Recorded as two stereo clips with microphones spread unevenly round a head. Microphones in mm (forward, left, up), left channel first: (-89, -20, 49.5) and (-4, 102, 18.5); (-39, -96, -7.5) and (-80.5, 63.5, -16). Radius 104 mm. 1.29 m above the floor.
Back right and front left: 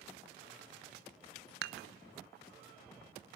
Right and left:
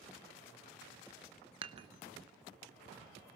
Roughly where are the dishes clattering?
Ahead left.